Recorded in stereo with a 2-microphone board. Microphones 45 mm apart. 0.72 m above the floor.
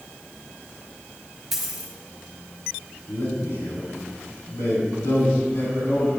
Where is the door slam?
I don't hear a door slam.